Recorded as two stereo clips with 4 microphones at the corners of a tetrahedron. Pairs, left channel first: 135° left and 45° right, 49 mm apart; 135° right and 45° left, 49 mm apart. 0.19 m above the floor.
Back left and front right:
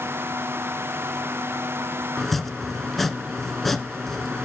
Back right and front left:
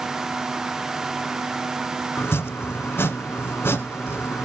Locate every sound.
2.2 s chopping: 140° right, 1.0 m